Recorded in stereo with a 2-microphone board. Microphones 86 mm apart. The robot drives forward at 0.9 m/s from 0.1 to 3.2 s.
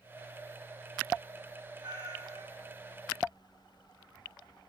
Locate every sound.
1.8 s a cat meowing: 50° right (ahead or behind), 3.5 m; by 2.7 s 45° right (ahead or behind), 4 m